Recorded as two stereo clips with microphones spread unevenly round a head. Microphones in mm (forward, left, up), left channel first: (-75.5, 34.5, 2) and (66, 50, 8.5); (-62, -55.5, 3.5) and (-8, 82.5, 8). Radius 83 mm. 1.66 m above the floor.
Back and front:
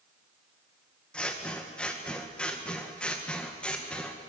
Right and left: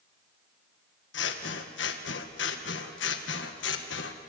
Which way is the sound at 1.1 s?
90° right.